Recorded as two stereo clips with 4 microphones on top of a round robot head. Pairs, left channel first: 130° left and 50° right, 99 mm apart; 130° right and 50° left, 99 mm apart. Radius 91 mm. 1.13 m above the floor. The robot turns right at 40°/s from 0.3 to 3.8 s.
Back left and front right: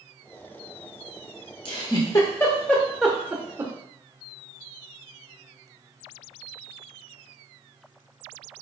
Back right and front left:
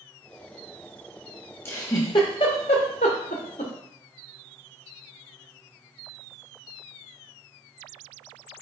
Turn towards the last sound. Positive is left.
turn(degrees=-105)